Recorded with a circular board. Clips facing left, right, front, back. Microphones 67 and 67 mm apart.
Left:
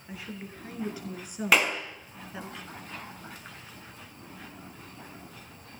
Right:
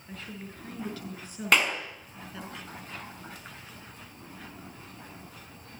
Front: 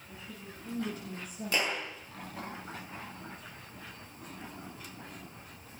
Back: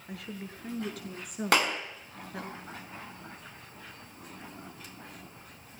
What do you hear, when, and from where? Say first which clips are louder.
0.1 s a woman speaking: left 1 dB, back 6 dB; 165° left, 6.5 m; by 2.5 s 160° left, 4.5 m
1.5 s a clap: even, back 6 dB; straight behind, 5 m